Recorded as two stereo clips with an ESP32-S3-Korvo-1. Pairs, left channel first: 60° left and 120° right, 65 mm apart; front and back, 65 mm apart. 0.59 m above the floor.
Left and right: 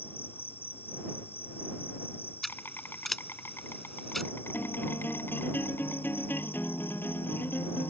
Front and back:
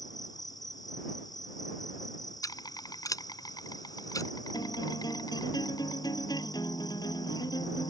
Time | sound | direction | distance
0.0 | an insect | 5° left | ?
2.4 | scissors | 25° right | ?
4.5 | a guitar | straight ahead | ?